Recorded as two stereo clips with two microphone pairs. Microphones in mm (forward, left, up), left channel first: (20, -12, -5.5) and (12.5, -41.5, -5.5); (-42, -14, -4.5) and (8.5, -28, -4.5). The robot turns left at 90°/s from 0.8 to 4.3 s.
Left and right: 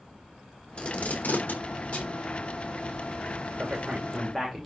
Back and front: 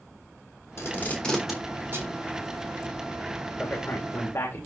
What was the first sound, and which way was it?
Tape being pulled, 130° left.